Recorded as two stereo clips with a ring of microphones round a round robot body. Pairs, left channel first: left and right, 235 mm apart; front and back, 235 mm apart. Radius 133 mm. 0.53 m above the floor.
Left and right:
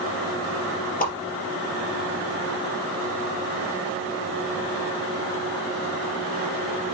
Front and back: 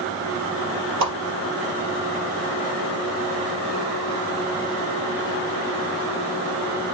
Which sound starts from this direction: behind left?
A whoosh, at 1.0 s.